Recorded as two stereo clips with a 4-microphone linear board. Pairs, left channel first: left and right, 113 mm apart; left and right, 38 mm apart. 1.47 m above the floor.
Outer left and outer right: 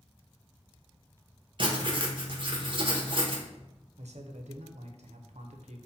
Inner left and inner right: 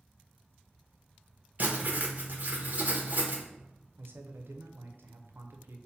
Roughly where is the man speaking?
Right.